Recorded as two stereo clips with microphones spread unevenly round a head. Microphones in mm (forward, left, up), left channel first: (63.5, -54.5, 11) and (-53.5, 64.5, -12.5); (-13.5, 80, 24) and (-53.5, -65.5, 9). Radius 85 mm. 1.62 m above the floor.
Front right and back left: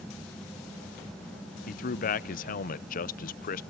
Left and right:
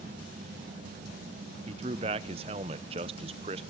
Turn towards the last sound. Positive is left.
turn(degrees=-50)